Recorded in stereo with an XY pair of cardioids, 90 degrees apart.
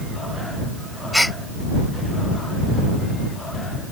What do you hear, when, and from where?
1.1 s a gasp: 5° left